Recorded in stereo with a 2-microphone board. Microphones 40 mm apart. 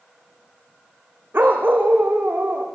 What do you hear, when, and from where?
1.3 s a dog barking: 55° right (ahead or behind), 3.5 m; by 2.6 s 45° right (ahead or behind), 4.5 m